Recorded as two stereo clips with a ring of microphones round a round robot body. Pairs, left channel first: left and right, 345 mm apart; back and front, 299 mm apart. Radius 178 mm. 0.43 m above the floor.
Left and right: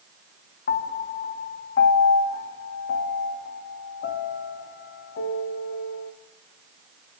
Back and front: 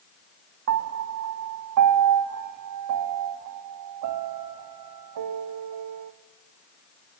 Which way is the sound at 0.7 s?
30° left.